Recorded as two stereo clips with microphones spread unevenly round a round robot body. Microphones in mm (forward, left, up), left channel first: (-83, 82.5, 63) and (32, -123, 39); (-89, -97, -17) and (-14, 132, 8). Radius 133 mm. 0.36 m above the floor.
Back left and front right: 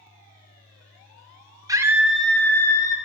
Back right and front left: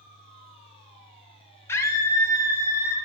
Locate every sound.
1.7 s a scream: 65° right, 0.9 m; by 3.0 s 170° right, 1.1 m